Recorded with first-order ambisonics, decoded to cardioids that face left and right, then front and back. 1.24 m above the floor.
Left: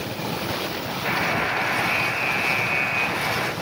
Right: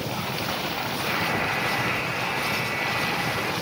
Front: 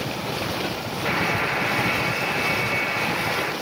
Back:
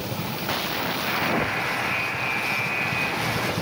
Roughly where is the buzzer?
Left.